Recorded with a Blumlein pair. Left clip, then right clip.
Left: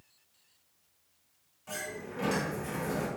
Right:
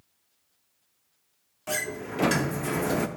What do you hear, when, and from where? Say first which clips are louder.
1.7 s a sliding door: right 8 dB; 55° right, 0.5 m